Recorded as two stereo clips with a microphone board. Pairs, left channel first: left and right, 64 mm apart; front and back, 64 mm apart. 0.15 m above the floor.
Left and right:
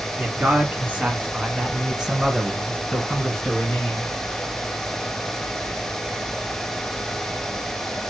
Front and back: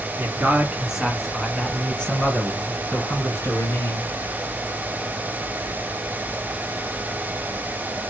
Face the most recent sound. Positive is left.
turn(degrees=10)